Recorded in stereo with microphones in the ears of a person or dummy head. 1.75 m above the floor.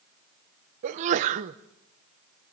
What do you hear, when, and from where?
0.8 s a sneeze: 40° right (ahead or behind), 1.0 m